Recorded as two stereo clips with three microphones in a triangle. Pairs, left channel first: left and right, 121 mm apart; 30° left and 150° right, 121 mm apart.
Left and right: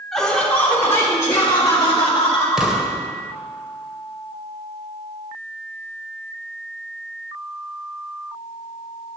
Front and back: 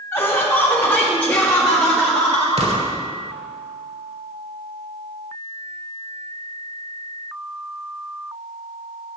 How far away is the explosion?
About 0.9 m.